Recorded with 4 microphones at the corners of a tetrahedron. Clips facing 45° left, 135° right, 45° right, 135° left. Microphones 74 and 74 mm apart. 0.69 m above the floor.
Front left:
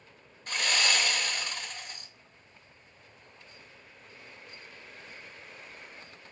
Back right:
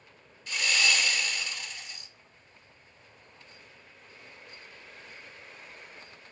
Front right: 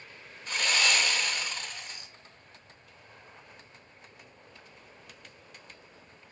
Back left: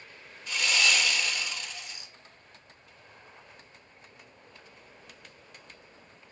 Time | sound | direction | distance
0.5 | sawing | straight ahead | 0.5 m